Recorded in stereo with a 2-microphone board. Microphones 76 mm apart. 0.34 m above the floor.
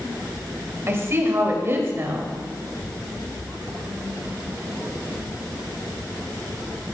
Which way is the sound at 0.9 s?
35° right (ahead or behind).